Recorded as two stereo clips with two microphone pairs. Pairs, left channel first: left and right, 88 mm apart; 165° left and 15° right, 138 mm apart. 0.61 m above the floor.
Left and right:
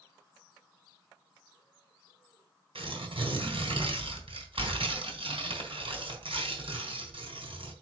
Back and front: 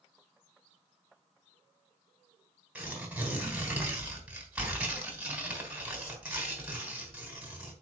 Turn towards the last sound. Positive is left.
turn(degrees=-95)